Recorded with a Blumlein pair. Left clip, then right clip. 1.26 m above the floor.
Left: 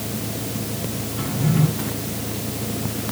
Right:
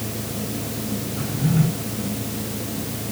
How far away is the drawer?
About 7 m.